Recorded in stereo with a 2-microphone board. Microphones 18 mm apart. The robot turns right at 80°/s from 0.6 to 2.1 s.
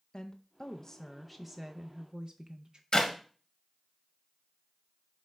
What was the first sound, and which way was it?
A woman speaking, 115° left.